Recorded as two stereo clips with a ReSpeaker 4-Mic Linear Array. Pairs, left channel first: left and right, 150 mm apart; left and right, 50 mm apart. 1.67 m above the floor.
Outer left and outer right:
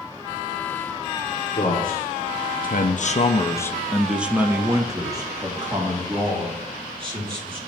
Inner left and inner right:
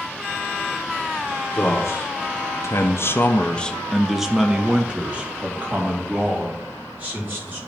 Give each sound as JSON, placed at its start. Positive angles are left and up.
{"t": 1.5, "sound": "a man speaking", "side_deg": 65, "distance_m": 1.7}